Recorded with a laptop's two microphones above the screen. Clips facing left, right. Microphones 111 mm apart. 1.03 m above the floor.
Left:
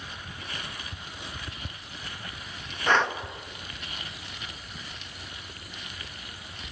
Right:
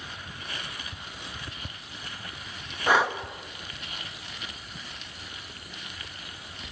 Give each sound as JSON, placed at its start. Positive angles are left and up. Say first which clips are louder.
{"t": 2.9, "sound": "breathing", "louder": "right 1 dB", "side_deg": -10, "distance_m": 1.1}